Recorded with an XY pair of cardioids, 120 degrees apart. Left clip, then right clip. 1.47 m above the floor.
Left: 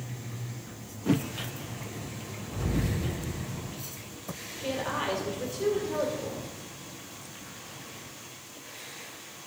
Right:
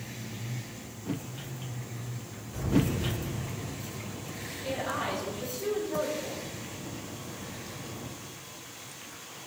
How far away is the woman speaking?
About 5.5 m.